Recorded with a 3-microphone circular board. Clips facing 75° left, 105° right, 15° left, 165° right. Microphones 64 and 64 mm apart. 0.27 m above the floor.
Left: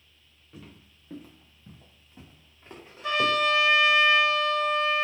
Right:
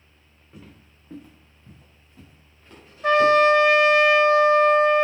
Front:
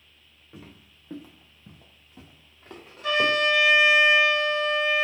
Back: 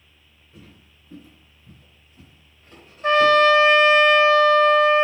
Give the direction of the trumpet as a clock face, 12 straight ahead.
4 o'clock.